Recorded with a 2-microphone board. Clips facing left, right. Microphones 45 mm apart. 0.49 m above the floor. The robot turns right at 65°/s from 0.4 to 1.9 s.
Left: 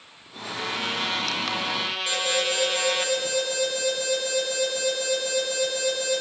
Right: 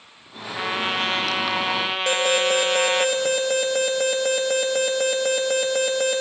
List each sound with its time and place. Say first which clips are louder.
0.6 s a trumpet: right 4 dB; 135° right, 0.6 m; by 3.1 s 50° right, 0.6 m
2.1 s an alarm: right 6 dB; 65° right (ahead or behind), 2.5 m